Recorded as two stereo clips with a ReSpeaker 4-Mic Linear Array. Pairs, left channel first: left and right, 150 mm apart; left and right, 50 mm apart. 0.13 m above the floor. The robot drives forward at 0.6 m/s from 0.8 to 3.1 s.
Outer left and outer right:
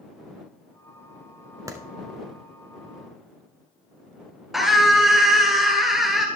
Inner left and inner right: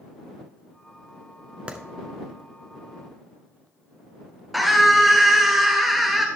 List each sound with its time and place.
1.7 s a clap: 20° right (ahead or behind), 1.2 m
4.5 s a scream: centre (ahead or behind), 1.8 m